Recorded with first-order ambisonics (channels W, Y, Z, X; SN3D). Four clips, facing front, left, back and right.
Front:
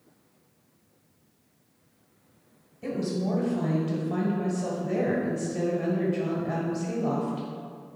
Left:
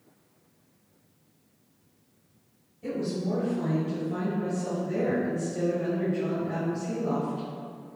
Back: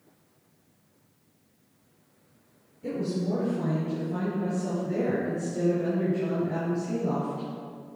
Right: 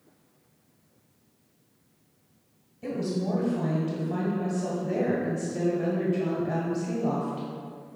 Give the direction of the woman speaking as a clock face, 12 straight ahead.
1 o'clock.